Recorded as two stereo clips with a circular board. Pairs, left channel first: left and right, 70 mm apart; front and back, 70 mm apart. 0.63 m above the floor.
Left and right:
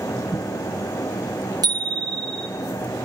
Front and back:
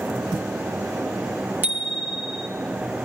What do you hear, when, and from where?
1.6 s a bicycle bell: 120° right, 5 m